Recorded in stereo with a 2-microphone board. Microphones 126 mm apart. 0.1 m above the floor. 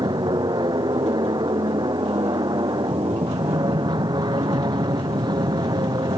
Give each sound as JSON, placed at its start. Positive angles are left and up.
{"t": 0.0, "sound": "an aircraft", "side_deg": -35}